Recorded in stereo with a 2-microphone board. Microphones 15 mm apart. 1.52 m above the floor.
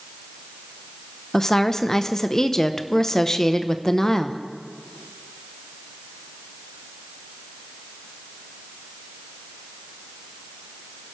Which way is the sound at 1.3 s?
30° left (ahead or behind).